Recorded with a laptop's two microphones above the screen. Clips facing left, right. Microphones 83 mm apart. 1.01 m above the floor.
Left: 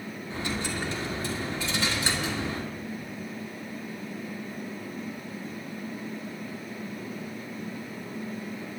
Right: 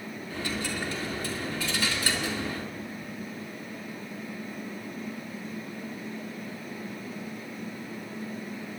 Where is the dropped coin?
25° left (ahead or behind), 2.5 m.